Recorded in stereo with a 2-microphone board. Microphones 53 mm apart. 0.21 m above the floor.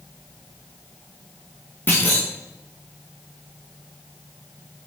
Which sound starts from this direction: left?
A clunk, at 1.9 s.